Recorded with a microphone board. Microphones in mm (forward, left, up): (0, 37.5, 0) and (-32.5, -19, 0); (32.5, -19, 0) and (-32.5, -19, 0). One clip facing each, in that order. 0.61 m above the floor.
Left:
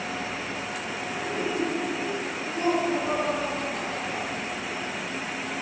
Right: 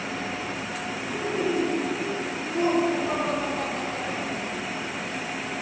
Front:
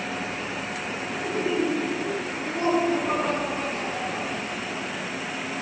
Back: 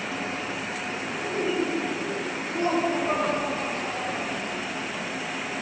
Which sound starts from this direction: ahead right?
Laughter, at 1.1 s.